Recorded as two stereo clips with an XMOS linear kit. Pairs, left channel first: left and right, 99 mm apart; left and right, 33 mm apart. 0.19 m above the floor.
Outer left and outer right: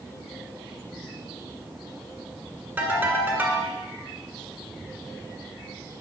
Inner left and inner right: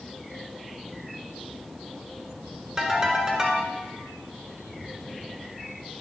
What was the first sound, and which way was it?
A ringtone, 15° right (ahead or behind).